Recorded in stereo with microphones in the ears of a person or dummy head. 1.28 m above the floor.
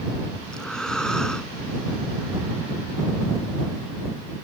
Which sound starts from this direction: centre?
Breathing, at 0.5 s.